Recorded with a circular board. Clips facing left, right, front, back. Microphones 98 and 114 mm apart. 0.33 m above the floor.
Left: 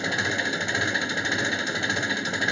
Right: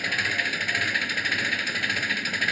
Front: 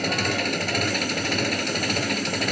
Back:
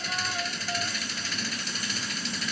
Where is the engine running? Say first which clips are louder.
Left 2 dB, front 8 dB; 25° left.